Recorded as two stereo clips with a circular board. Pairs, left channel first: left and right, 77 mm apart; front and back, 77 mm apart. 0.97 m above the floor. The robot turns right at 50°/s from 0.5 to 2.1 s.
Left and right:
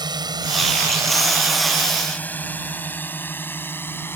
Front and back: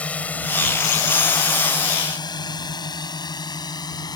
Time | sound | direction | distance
0.0 | a drone | 70° right | ?